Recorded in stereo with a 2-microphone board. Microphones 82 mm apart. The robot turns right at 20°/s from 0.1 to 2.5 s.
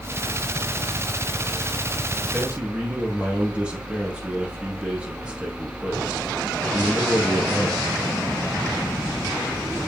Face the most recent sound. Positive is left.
turn(degrees=-15)  # may be behind; listen again after turning